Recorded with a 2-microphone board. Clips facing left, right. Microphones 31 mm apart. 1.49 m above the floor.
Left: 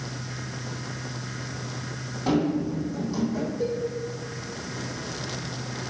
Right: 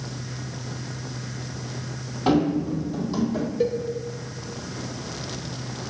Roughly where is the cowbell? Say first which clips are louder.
Right 6 dB; right.